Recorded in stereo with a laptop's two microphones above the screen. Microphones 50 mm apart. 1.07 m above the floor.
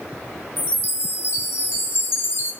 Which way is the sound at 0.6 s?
55° left (ahead or behind).